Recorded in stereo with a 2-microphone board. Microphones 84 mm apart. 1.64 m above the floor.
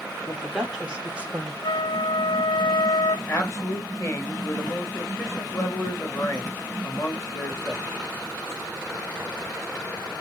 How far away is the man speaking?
About 3 m.